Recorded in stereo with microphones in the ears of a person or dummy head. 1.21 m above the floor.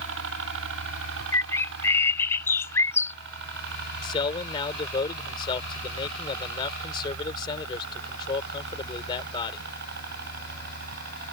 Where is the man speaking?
35° left (ahead or behind).